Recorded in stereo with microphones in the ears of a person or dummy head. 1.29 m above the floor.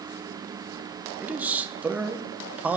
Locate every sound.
1.2 s a man speaking: 10° right (ahead or behind), 0.8 m